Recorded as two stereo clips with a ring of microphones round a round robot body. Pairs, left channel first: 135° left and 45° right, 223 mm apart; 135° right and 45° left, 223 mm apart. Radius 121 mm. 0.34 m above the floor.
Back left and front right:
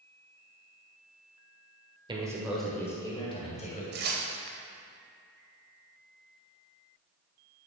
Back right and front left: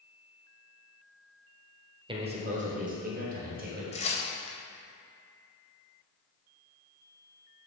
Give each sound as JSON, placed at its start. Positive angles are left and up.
{"t": 2.1, "sound": "a man speaking", "azimuth_deg": 0, "distance_m": 1.5}
{"t": 3.9, "sound": "tearing paper", "azimuth_deg": -80, "distance_m": 1.2}